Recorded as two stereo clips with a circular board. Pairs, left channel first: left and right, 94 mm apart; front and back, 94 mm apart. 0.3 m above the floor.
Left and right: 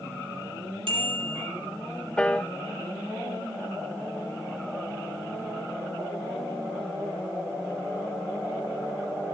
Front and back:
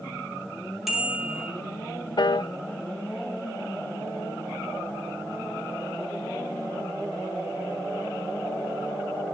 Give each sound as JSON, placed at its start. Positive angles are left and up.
{"t": 0.9, "sound": "a bicycle bell", "azimuth_deg": -95, "distance_m": 7.0}
{"t": 2.2, "sound": "a piano", "azimuth_deg": 15, "distance_m": 0.6}